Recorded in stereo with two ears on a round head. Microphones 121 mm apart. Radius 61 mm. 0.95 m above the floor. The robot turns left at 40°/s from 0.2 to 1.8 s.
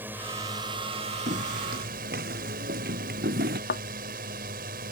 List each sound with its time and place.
0.0 s a drone: 15° right; by 4.9 s 80° right
1.3 s footsteps: 60° right (ahead or behind); by 3.6 s 80° right
3.7 s a thud: 80° left